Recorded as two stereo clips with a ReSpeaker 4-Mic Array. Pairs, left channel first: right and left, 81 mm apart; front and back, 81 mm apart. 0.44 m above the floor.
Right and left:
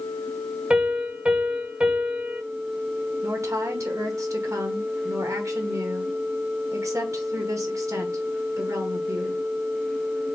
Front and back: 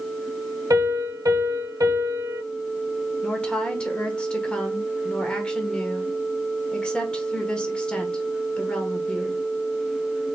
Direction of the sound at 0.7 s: 160° left.